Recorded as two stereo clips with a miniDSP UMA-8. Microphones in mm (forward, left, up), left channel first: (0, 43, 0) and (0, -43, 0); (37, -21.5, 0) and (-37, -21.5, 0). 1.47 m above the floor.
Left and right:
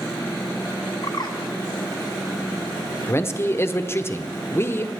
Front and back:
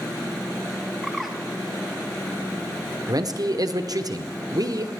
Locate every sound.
1.0 s a bird: 90° left, 1.2 m
3.1 s a man speaking: 150° left, 0.7 m